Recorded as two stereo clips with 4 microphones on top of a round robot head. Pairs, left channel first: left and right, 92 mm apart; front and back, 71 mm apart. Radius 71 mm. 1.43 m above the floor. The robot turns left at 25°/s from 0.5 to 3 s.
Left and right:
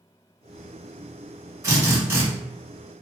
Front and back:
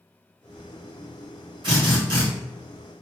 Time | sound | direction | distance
1.6 | a drill | 145° right | 1.5 m